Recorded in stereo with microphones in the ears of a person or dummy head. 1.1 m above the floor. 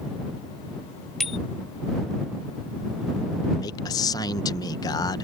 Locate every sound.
1.2 s a bicycle bell: 5° left (ahead or behind)
3.6 s a man speaking: 25° left (ahead or behind)